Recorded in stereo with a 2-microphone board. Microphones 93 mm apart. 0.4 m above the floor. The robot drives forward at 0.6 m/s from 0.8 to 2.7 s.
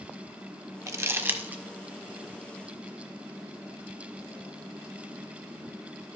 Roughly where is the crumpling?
Right.